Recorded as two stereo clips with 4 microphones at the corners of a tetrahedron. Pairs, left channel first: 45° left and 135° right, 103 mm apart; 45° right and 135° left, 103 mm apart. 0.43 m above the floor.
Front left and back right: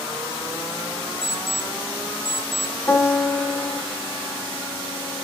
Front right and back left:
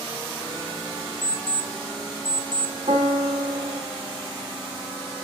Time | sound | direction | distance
1.2 | an alarm clock | 45° right | 1.2 m
2.9 | a piano | 120° left | 3 m